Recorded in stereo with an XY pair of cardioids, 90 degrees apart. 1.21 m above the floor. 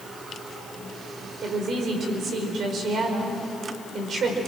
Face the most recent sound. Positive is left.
turn(degrees=-65)